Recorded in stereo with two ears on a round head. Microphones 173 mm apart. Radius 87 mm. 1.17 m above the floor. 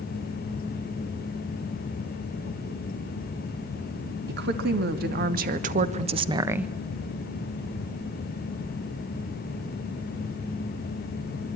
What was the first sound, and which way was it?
A woman speaking, 55° right (ahead or behind).